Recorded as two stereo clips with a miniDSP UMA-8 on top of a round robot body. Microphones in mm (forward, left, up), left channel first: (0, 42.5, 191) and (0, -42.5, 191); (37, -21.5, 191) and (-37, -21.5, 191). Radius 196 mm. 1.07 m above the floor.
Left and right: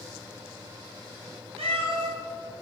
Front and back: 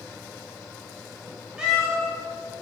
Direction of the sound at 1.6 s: 95° right.